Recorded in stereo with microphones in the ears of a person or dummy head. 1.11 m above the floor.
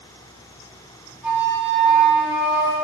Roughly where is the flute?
Centre.